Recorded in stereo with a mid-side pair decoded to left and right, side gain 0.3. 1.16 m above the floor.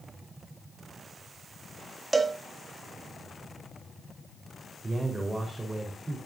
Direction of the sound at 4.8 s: 25° right.